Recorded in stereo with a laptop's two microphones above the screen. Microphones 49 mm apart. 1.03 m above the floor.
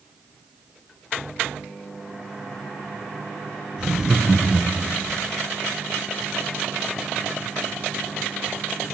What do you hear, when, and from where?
3.8 s laughter: 15° right (ahead or behind), 0.6 m; by 5.2 s 20° left (ahead or behind), 0.9 m